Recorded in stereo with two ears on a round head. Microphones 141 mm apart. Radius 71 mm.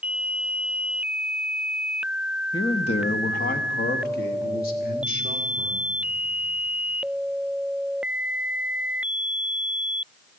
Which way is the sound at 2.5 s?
25° left (ahead or behind).